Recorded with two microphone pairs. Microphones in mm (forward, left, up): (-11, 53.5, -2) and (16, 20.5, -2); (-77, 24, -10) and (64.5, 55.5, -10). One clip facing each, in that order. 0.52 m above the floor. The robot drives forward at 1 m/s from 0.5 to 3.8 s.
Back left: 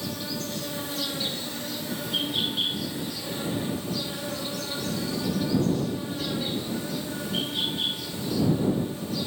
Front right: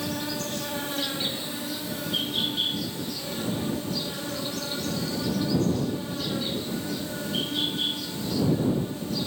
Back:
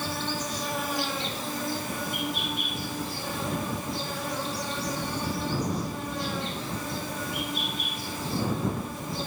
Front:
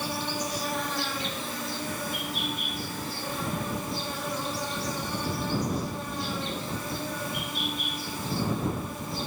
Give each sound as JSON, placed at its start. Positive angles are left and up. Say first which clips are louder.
{"t": 0.0, "sound": "an insect", "louder": "front right 2 dB, even", "azimuth_deg": -65, "distance_m": 1.0}